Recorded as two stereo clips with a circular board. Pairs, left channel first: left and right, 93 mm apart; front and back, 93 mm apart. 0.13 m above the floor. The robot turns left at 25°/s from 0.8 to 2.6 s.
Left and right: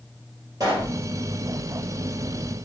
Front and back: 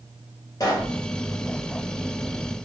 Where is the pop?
50° right, 2 m; by 1.0 s 55° right, 2 m.